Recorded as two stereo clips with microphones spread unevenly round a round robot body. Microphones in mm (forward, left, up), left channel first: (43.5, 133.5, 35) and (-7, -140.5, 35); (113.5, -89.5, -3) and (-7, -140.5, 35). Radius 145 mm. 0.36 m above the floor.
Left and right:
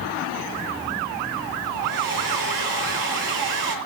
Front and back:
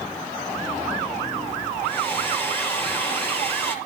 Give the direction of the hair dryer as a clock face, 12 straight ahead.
2 o'clock.